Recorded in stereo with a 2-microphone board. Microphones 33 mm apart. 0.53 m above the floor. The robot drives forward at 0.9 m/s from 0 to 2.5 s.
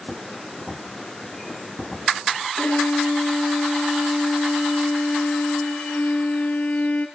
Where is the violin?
60° left (ahead or behind), 2 m.